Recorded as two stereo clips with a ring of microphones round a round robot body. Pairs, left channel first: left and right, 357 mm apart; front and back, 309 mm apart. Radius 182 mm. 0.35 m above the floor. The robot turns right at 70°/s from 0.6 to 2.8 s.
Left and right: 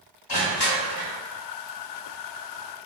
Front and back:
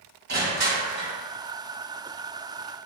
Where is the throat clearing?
I don't hear throat clearing.